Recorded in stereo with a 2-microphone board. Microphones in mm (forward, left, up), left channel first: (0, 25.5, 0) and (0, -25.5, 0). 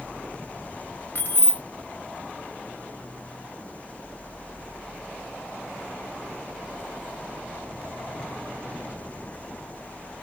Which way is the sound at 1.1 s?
40° left (ahead or behind).